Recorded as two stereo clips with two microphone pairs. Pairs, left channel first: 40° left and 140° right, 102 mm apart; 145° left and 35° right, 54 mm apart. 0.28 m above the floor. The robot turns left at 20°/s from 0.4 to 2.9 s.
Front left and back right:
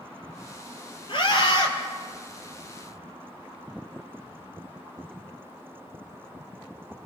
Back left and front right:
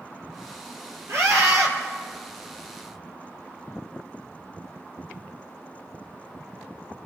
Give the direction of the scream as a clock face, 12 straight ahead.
12 o'clock.